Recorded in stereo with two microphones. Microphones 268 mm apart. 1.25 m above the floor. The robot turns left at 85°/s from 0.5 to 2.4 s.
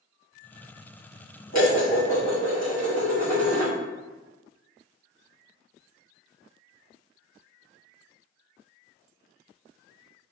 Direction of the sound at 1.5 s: 100° left.